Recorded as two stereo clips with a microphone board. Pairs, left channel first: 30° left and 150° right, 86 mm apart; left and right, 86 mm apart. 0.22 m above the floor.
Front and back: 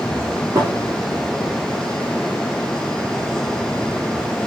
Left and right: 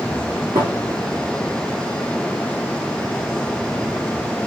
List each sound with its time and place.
0.6 s a thud: 95° right, 4 m